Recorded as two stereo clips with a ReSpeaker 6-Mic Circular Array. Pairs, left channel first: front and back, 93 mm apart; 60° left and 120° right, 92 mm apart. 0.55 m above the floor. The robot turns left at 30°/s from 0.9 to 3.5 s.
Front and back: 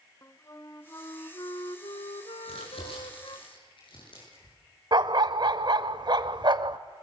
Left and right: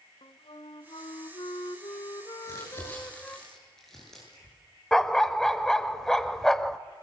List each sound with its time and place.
0.2 s a flute: 55° left, 1.1 m; by 3.4 s 20° right, 1.1 m
2.4 s crumpling: 10° left, 9.5 m; by 4.5 s 25° right, 9.5 m
4.9 s a dog barking: 145° left, 0.8 m